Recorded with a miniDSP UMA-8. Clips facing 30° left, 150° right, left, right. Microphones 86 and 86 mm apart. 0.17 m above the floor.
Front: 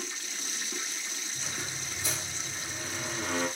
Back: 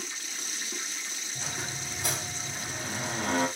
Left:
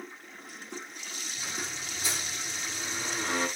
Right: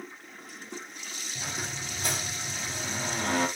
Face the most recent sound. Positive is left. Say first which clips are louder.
# back 3 dB, right 2 dB
turn(degrees=-130)